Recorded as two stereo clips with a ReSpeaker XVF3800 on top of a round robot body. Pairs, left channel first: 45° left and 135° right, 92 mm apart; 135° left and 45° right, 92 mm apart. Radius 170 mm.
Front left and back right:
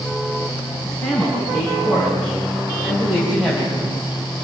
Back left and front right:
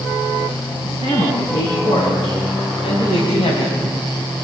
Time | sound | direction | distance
0.8 | a man speaking | 135° left | 8.5 m